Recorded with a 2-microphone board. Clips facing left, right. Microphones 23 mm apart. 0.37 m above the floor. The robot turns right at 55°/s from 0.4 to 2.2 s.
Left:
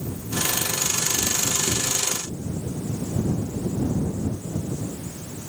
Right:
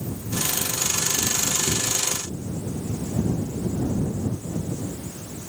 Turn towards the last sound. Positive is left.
No sound to turn to.